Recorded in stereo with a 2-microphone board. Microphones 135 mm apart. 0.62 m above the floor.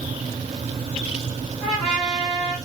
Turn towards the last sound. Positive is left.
turn(degrees=5)  # may be behind; listen again after turning